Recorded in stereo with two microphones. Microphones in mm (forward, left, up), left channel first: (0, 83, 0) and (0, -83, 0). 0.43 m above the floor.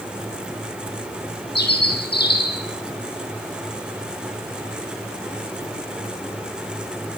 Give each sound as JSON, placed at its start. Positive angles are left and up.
{"t": 1.6, "sound": "a bird", "side_deg": 75, "distance_m": 7.0}